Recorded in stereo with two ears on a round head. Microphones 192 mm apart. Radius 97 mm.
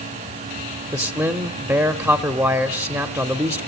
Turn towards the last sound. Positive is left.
turn(degrees=-15)  # may be behind; listen again after turning